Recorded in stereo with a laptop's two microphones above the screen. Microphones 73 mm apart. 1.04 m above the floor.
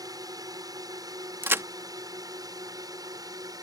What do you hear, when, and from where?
0.0 s a drone: 55° right (ahead or behind)
1.4 s a crack: 30° right (ahead or behind)